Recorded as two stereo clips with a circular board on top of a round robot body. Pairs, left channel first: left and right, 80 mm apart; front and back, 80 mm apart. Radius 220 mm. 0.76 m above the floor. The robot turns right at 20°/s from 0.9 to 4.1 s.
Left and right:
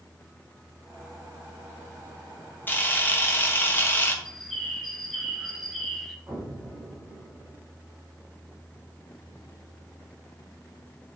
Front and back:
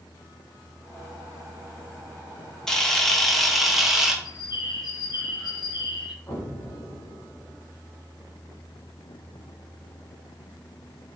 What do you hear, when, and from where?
2.7 s a camera shutter: 75° left, 1.1 m; by 4.2 s 100° left, 1.1 m
4.2 s a bird: 5° left, 0.9 m
6.3 s an explosion: 50° right, 3 m